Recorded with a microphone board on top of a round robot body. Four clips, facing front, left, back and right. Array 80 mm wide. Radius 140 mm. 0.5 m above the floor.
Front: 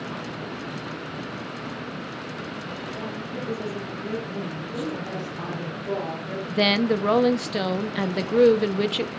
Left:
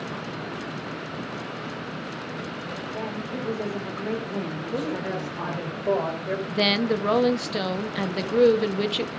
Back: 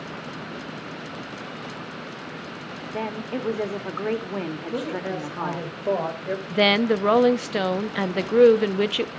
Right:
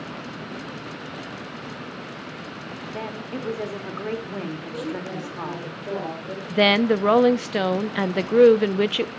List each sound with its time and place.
2.9 s a woman speaking: 170° right, 2.5 m
4.7 s a woman speaking: 150° left, 4 m
6.5 s a woman speaking: 120° right, 0.8 m